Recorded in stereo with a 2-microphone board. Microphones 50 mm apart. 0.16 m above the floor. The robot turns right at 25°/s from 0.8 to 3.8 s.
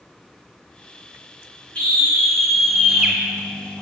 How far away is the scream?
About 1.6 m.